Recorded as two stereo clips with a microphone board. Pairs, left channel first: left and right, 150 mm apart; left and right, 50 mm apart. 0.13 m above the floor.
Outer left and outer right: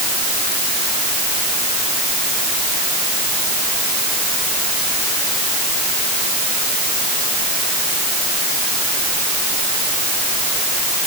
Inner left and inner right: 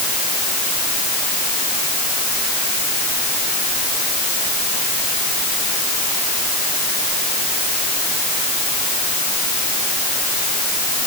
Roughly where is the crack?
I don't hear a crack.